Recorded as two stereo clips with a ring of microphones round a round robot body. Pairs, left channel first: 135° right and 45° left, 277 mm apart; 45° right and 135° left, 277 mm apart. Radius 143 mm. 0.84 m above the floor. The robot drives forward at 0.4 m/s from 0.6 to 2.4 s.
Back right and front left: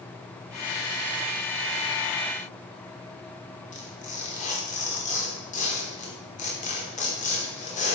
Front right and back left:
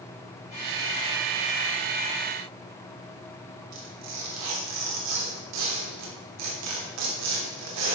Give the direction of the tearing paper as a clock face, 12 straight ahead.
7 o'clock.